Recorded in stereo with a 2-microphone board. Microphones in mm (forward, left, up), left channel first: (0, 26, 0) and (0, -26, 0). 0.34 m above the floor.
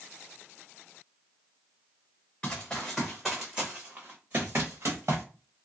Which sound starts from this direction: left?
Running footsteps, at 2.4 s.